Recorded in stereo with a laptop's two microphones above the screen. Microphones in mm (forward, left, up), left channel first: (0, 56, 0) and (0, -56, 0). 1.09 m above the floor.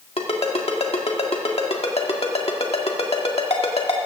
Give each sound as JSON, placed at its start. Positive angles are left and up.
{"t": 0.2, "sound": "a ringtone", "side_deg": 65, "distance_m": 1.7}